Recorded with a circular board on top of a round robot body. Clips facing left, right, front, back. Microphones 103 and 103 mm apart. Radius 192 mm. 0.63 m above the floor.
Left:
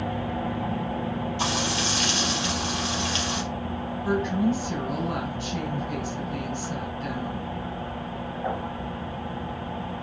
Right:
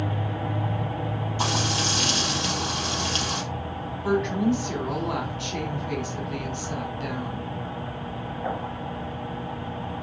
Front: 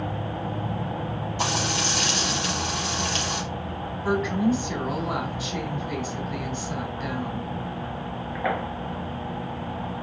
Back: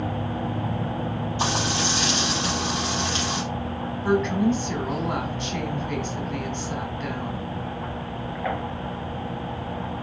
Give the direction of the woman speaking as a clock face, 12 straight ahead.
3 o'clock.